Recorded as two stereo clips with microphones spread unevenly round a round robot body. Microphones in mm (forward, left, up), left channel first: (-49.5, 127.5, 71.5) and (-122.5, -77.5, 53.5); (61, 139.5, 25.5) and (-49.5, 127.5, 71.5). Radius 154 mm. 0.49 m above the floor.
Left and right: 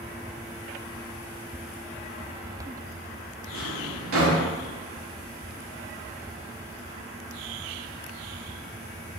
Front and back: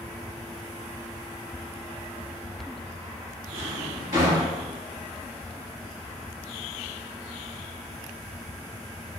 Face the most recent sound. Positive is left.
turn(degrees=-135)